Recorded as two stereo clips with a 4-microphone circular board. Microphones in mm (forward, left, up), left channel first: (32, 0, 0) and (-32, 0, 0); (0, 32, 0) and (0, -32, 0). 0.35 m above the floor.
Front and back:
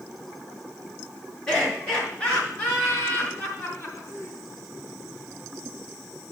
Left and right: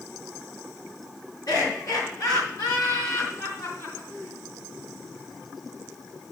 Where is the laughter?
80° left, 5 m; by 4.4 s 45° left, 3.5 m.